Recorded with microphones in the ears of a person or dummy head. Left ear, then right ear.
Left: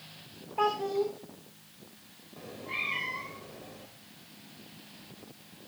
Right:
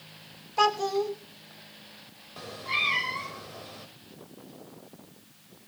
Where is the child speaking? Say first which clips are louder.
Right 4 dB; 80° right, 3 m.